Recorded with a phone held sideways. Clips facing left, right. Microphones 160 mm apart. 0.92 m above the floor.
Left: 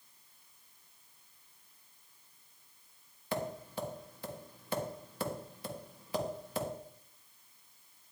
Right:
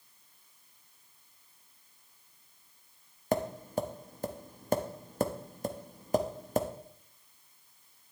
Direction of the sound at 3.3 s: 45° right (ahead or behind).